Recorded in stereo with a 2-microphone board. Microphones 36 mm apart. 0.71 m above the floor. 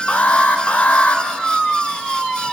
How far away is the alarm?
About 3 m.